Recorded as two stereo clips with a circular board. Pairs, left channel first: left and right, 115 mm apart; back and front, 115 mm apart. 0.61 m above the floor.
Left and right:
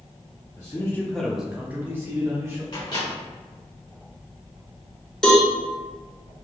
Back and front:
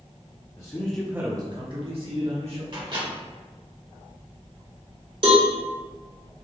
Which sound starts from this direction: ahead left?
A microwave, at 2.7 s.